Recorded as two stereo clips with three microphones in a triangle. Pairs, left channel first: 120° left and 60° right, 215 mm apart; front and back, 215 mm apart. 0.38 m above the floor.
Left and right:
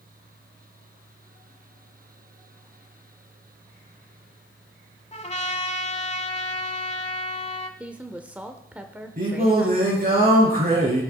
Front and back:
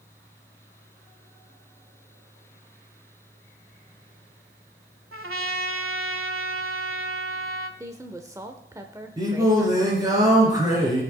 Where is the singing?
110° right, 5 m.